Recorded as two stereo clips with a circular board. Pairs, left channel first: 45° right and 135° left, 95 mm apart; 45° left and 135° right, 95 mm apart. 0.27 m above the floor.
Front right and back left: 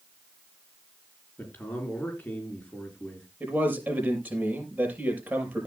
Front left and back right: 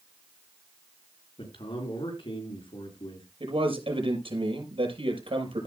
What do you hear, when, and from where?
1.4 s a man speaking: 30° left, 4.5 m
3.4 s a man speaking: 150° right, 6.5 m